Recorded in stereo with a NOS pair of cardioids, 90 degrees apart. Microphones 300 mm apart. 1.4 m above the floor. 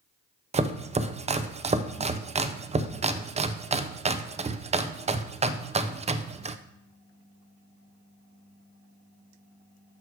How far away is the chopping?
About 0.6 m.